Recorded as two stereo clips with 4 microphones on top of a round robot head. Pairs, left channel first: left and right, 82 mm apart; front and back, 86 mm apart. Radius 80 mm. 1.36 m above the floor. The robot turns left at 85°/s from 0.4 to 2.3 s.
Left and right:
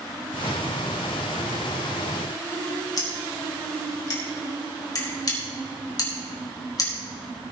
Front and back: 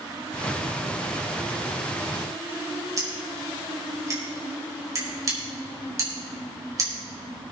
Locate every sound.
3.0 s scissors: 130° left, 4.5 m